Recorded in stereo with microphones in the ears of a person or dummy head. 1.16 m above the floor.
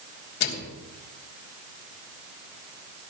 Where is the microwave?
55° left (ahead or behind), 2.5 m.